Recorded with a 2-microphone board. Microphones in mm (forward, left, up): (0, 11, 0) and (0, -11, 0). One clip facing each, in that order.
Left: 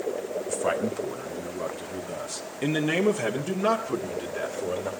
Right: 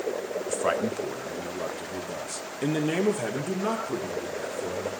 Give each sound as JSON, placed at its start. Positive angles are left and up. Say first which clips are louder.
{"t": 0.5, "sound": "a man speaking", "louder": "right 1 dB", "side_deg": -15, "distance_m": 1.9}